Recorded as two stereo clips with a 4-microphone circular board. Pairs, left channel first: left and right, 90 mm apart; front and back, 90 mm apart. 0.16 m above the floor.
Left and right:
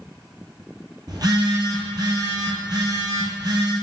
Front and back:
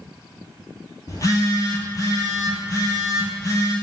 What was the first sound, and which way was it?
A phone buzzing, 50° right.